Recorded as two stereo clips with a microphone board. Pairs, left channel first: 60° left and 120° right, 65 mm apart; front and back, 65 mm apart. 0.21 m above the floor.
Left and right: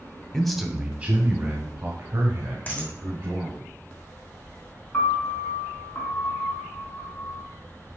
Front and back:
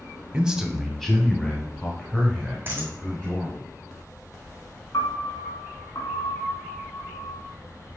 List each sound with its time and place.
0.3 s a man speaking: 135° left, 1.0 m; by 3.7 s 65° right, 3.5 m
2.7 s a dropped coin: 125° left, 1.7 m
4.9 s a piano: 10° left, 2 m